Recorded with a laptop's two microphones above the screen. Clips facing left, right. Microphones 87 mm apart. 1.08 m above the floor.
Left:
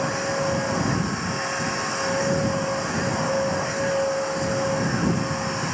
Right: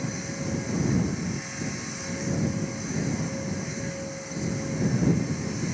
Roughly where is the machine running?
Left.